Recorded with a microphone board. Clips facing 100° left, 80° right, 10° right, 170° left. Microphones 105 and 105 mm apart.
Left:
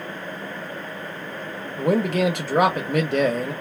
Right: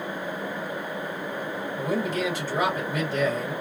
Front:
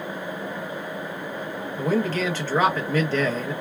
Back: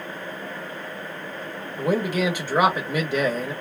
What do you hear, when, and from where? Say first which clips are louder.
1.8 s a man speaking: left 7 dB, back 1 dB; 95° left, 1.0 m